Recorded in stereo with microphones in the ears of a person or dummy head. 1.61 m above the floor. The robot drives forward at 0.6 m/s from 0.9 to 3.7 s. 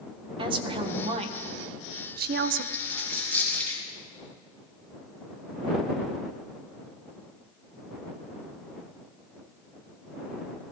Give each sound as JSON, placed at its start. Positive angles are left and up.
{"t": 0.4, "sound": "a woman speaking", "side_deg": -30, "distance_m": 1.4}
{"t": 2.7, "sound": "a dropped coin", "side_deg": -60, "distance_m": 3.5}